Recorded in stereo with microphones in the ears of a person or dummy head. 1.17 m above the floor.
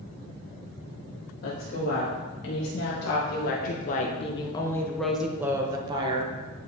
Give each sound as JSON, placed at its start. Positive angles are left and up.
{"t": 1.4, "sound": "a woman speaking", "side_deg": 75, "distance_m": 2.0}